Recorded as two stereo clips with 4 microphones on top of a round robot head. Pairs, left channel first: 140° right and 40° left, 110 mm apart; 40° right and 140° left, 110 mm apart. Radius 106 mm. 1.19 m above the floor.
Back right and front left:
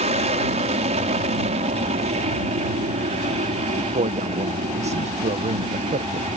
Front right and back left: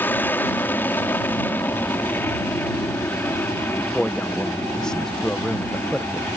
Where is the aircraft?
30° left.